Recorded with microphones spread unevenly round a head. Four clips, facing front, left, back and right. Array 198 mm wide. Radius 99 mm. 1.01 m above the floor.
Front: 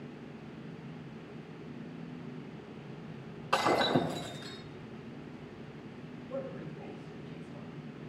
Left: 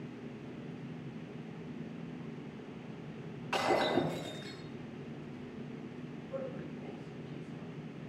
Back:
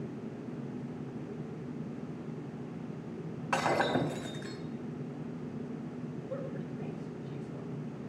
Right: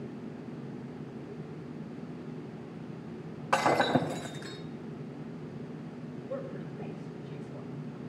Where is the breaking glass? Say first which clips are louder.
Right 4 dB, front 1 dB; 90° right, 3.5 m.